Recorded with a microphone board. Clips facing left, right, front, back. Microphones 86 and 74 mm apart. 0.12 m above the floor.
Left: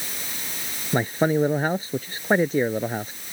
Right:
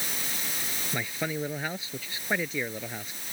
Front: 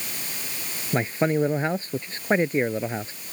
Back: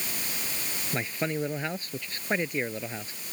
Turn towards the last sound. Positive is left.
turn(degrees=55)